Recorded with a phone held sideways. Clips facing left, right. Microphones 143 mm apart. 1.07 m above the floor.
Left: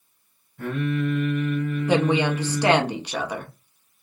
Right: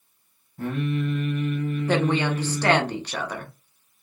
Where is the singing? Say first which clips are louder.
Left 1 dB; 35° right (ahead or behind), 1.5 m.